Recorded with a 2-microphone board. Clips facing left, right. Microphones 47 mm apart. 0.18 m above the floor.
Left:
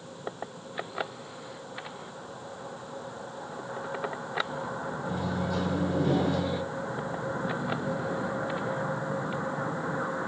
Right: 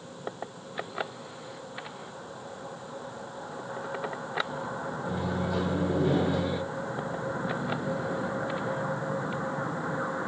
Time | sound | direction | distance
5.0 | a microwave | 15° right (ahead or behind) | 2 m